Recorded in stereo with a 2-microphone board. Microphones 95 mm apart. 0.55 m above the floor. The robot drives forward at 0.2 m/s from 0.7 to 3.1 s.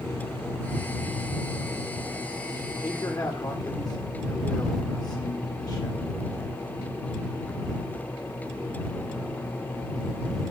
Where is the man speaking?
45° left (ahead or behind), 1.6 m.